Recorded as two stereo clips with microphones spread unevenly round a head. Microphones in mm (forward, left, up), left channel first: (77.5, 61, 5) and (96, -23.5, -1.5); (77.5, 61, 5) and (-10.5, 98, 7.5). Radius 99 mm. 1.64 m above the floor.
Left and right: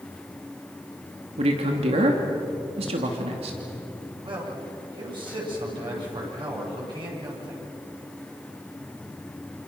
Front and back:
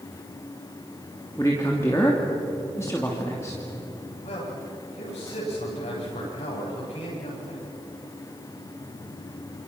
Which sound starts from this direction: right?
A man speaking, at 1.4 s.